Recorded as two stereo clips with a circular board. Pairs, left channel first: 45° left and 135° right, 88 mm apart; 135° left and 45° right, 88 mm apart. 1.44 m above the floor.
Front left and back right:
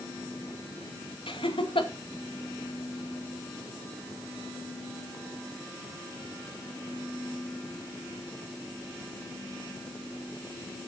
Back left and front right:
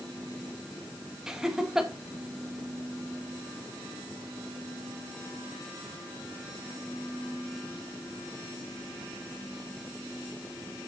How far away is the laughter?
About 2.0 m.